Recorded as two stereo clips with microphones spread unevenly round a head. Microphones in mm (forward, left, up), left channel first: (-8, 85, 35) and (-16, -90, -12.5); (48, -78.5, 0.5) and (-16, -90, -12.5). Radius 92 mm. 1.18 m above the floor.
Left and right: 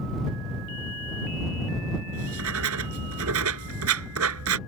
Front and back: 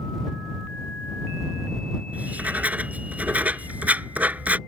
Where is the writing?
100° right.